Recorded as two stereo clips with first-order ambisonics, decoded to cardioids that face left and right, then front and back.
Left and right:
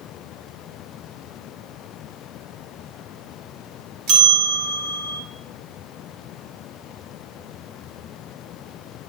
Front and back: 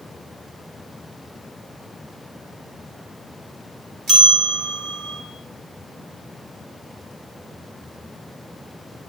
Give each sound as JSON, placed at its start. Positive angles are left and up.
{"t": 4.1, "sound": "a bell", "azimuth_deg": -125, "distance_m": 1.8}